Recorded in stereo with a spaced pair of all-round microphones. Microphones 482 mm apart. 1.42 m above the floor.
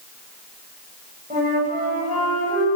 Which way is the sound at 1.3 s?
15° right (ahead or behind).